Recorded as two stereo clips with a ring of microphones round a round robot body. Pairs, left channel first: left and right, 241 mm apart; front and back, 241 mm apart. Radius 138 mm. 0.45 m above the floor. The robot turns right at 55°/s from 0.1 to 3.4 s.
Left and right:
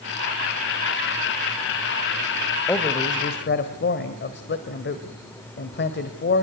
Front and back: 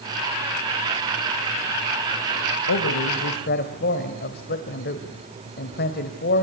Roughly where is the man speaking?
Ahead.